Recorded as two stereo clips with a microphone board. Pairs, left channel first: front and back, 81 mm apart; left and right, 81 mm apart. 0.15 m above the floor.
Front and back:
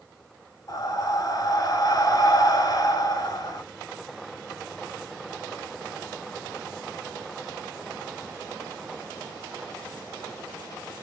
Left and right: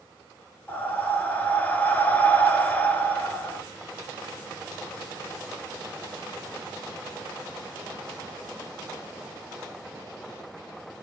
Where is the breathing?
25° left, 0.9 m.